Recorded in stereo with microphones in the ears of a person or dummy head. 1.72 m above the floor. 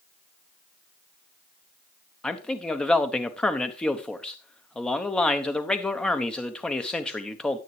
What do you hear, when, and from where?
2.2 s a man speaking: 5° left (ahead or behind), 0.8 m